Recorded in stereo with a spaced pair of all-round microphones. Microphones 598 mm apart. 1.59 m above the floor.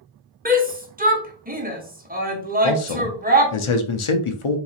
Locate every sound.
0.5 s a shout: 15° right (ahead or behind), 0.8 m
2.6 s a man speaking: 55° left (ahead or behind), 0.6 m